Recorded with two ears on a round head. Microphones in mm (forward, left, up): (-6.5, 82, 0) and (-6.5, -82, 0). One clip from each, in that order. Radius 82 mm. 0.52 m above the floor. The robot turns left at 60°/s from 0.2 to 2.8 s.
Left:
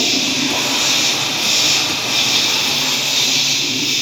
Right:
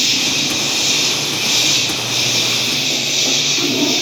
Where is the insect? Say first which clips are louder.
Right 1 dB; 150° right, 1.5 m; by 4.0 s 55° left, 1.5 m.